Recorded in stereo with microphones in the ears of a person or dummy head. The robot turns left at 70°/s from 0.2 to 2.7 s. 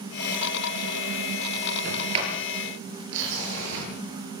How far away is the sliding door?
About 10 m.